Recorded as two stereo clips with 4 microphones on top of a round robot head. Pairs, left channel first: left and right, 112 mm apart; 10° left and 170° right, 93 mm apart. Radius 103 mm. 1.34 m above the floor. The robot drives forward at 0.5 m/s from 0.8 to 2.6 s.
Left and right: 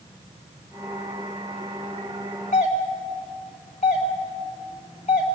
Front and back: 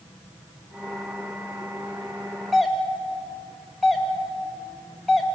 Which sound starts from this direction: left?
A doorbell, at 2.5 s.